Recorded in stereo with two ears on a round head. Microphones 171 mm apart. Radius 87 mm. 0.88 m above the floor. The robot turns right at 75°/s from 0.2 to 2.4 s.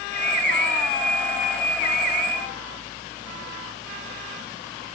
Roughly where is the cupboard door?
I don't hear a cupboard door.